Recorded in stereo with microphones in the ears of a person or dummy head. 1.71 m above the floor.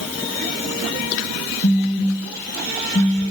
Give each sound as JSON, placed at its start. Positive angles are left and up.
{"t": 1.6, "sound": "a phone buzzing", "side_deg": 40, "distance_m": 1.8}